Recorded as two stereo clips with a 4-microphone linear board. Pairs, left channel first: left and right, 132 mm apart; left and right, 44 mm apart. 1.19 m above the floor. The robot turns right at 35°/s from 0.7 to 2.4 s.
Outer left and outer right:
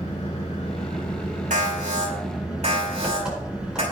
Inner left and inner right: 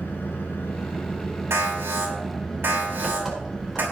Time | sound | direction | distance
0.0 | an engine running | 125° left | 4 m
1.5 | an alarm | 85° right | 5.5 m